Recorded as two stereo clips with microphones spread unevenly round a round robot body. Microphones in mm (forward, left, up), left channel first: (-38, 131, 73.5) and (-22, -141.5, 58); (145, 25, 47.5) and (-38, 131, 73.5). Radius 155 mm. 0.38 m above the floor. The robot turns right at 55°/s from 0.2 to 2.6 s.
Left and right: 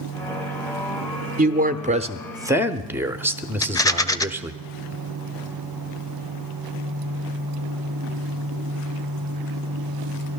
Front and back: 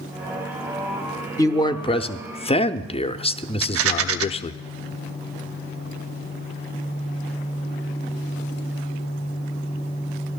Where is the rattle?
170° left, 0.6 m.